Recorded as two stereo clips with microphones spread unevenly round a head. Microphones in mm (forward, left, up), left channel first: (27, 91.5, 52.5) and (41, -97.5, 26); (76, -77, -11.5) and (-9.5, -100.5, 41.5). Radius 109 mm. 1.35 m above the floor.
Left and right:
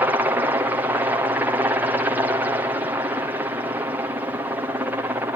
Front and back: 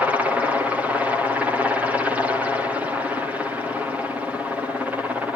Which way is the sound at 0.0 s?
40° right.